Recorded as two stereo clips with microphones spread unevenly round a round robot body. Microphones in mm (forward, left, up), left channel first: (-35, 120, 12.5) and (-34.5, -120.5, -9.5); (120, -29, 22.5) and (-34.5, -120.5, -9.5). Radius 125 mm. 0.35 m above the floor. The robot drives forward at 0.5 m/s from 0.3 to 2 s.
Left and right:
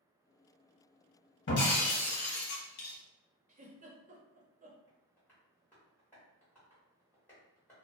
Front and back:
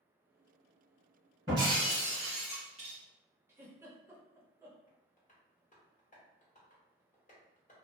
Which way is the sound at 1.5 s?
135° left.